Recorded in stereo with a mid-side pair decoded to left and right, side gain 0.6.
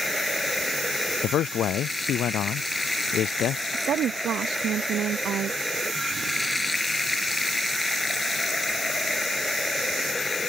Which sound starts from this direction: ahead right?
A woman speaking, at 3.7 s.